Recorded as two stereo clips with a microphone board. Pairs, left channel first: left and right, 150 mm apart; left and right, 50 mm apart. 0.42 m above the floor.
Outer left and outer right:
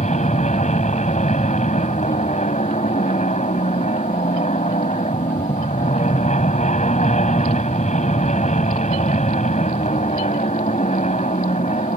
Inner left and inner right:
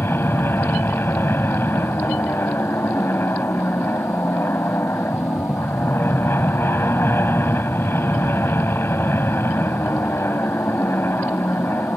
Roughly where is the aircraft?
Left.